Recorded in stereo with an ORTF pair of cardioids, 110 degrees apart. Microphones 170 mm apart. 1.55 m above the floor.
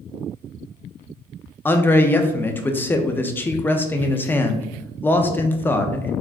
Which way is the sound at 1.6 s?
15° left.